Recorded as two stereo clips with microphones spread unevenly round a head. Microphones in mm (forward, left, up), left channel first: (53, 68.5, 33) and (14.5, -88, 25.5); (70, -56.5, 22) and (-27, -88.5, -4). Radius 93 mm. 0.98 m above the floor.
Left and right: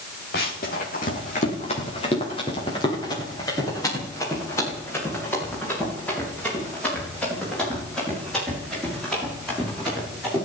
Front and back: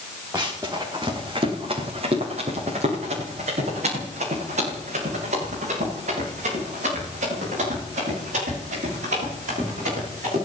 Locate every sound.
0.3 s running footsteps: 115° left, 5.5 m; by 10.4 s 165° left, 19 m